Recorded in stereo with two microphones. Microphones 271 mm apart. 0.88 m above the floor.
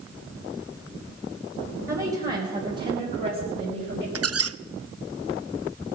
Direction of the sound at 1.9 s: 30° right (ahead or behind).